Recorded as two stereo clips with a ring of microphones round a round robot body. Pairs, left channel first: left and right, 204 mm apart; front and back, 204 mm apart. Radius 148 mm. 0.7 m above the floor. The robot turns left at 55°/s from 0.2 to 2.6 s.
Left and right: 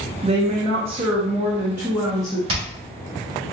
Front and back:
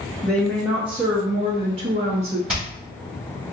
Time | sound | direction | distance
0.2 | a woman speaking | 70° right | 0.7 m
2.5 | hammering | 95° right | 1.8 m